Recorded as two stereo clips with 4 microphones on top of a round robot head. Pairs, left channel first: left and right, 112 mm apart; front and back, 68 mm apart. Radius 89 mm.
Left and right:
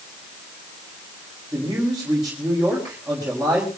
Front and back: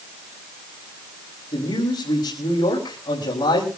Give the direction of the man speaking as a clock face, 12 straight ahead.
12 o'clock.